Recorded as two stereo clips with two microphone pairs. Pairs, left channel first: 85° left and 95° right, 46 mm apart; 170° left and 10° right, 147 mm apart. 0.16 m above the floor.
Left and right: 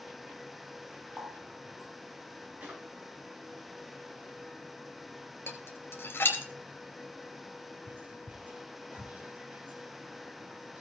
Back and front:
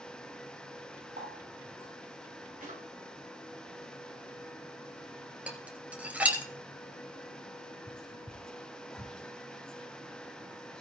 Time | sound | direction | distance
1.2 | a running tap | 15° right | 7.5 m
2.6 | a drawer | 30° right | 8 m
5.5 | dishes clattering | 70° left | 1.9 m
7.9 | whispering | 110° right | 1.8 m